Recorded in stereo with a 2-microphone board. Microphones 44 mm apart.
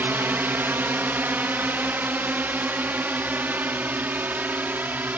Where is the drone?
55° right (ahead or behind); by 5.2 s 45° right (ahead or behind).